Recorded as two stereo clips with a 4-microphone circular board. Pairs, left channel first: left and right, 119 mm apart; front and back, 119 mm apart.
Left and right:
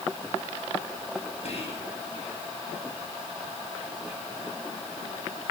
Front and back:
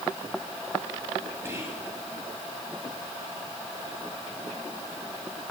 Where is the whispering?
110° left, 3 m.